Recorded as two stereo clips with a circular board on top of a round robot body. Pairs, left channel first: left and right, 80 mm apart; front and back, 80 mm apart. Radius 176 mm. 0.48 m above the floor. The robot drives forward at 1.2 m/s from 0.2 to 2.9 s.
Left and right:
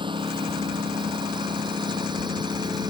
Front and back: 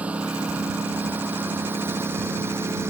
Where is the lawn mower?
105° right; by 2.9 s 120° right.